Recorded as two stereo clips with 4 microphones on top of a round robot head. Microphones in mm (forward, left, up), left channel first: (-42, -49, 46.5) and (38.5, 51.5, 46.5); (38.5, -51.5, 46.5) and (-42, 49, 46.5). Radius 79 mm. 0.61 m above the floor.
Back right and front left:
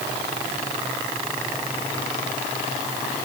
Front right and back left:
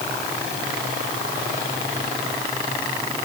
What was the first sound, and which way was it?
Only background noise.